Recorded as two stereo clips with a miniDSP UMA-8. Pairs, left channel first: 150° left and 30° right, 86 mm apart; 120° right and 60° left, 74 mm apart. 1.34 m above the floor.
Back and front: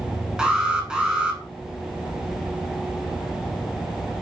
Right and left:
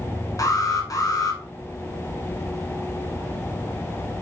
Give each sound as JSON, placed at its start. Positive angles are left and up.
{"t": 0.4, "sound": "an alarm", "azimuth_deg": -110, "distance_m": 1.4}